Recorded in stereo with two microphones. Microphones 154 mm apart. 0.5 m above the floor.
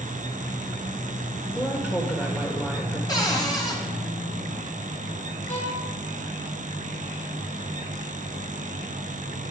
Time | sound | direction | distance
1.6 | a woman speaking | 10° left (ahead or behind) | 1.3 m
3.1 | a cupboard door | 25° left (ahead or behind) | 1.6 m
5.5 | a violin | 50° left (ahead or behind) | 2.5 m